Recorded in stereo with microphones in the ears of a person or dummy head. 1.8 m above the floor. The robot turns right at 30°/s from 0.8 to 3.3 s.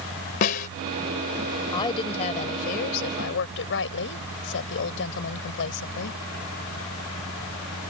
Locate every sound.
0.4 s a snare drum: 35° left (ahead or behind)
1.7 s a woman speaking: 20° left; by 6.2 s 70° left